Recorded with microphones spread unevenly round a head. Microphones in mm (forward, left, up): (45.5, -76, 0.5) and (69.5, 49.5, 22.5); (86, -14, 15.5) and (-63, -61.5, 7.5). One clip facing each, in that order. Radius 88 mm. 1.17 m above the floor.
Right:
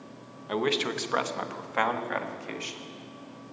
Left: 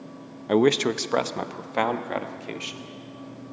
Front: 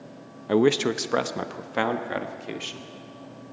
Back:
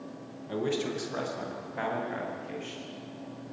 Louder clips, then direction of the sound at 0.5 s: Left 8 dB, front 10 dB; 40° left.